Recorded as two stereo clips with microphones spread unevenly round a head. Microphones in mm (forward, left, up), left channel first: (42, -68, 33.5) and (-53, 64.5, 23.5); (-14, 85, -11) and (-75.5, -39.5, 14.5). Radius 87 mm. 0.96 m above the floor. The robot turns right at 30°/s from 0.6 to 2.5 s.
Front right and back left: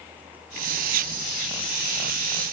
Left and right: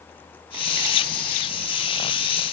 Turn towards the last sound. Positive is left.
No sound to turn to.